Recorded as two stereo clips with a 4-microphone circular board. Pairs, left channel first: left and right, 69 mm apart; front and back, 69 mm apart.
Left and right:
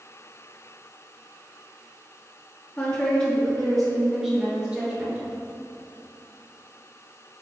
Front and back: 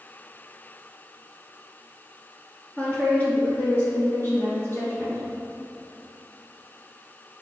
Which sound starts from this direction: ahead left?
A woman speaking, at 2.8 s.